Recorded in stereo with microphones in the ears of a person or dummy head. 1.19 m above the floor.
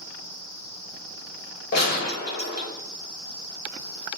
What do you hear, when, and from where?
1.7 s a gunshot: 55° left (ahead or behind), 1.3 m